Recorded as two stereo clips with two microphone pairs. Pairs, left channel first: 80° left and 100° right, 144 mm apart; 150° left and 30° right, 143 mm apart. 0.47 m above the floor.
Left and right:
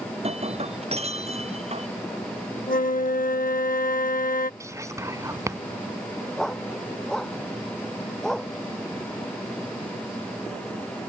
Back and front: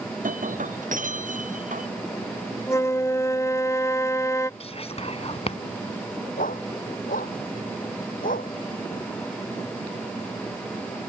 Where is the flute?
80° left.